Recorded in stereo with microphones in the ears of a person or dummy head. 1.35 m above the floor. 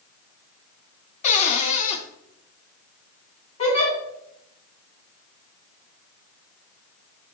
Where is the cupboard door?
40° left (ahead or behind), 1.4 m.